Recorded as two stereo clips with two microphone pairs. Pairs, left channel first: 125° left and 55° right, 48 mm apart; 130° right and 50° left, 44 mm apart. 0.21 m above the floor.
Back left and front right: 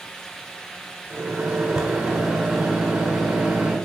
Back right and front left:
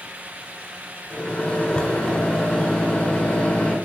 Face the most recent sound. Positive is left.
turn(degrees=-90)